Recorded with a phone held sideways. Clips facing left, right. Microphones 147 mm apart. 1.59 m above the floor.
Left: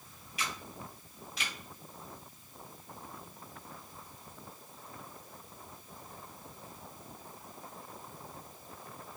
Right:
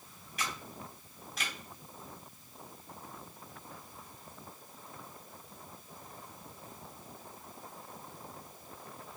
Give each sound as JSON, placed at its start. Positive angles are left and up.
{"t": 0.4, "sound": "a camera shutter", "side_deg": -50, "distance_m": 2.0}